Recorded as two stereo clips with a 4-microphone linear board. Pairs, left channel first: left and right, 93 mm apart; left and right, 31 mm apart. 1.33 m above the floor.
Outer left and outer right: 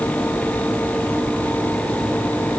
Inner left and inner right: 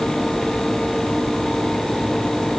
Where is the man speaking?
I don't hear a man speaking.